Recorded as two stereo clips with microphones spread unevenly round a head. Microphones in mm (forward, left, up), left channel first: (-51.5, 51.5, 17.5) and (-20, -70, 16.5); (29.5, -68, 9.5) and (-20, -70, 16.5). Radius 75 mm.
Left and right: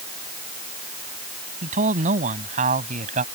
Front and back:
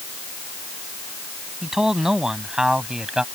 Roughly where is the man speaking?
Right.